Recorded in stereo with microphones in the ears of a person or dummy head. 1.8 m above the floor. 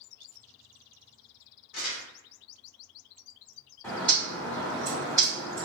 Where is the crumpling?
65° left (ahead or behind), 1.1 m.